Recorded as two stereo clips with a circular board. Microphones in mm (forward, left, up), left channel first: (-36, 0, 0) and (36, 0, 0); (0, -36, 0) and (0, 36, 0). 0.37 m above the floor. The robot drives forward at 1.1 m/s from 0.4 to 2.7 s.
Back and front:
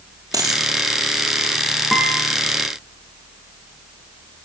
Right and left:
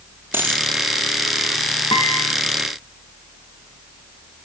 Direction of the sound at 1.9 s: 90° right.